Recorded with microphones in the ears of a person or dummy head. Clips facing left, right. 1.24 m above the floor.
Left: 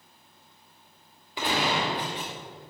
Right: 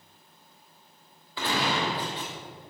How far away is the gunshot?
About 2.5 m.